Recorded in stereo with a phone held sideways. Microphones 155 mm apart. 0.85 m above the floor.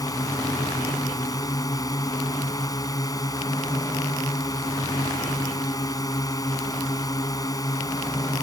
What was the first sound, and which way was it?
A drone, 25° left (ahead or behind).